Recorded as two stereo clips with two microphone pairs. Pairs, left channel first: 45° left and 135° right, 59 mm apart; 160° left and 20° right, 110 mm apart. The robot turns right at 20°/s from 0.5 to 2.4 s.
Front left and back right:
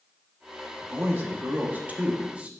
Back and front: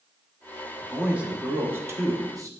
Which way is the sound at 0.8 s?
105° right.